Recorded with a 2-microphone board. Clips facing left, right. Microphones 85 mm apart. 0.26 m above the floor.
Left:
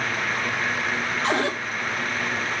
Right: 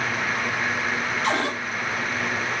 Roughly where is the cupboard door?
Left.